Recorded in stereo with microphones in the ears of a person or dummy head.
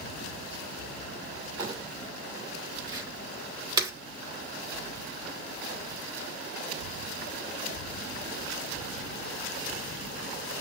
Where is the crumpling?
20° right (ahead or behind), 3 m.